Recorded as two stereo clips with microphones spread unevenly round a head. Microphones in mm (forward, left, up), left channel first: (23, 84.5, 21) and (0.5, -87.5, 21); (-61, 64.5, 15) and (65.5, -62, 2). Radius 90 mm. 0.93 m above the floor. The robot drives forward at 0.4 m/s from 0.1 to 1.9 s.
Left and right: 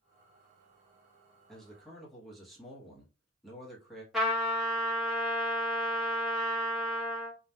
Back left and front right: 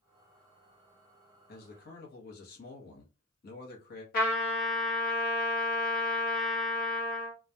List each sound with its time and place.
1.5 s a man speaking: 170° left, 0.7 m; by 4.0 s 175° left, 0.8 m
4.1 s a trumpet: 175° left, 1.0 m